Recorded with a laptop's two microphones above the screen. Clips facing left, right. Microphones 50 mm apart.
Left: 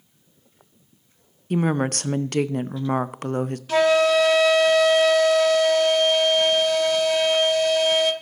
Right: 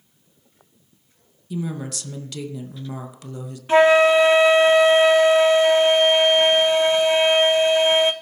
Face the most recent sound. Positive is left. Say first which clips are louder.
# right 4 dB
turn(degrees=-25)  # may be behind; listen again after turning